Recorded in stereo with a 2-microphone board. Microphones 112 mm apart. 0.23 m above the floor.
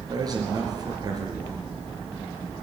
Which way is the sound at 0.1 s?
35° right (ahead or behind).